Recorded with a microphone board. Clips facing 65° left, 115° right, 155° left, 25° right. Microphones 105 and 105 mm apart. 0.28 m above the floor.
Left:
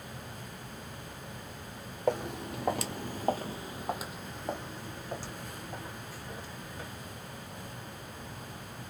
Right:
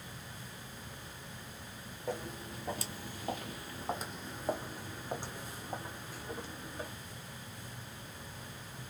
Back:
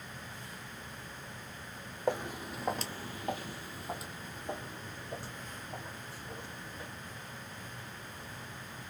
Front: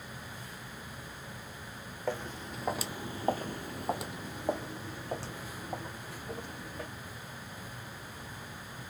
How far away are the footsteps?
About 0.8 m.